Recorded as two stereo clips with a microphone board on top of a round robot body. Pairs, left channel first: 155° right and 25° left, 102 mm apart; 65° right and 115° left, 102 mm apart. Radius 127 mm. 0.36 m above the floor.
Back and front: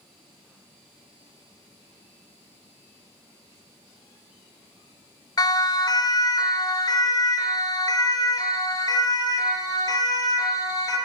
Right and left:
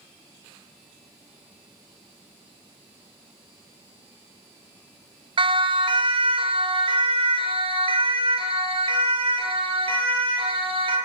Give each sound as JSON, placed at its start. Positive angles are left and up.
{"t": 5.4, "sound": "a siren", "azimuth_deg": 150, "distance_m": 3.0}